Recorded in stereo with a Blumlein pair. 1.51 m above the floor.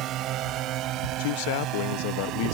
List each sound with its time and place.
0.0 s a drone: 35° right
1.2 s a man speaking: 50° left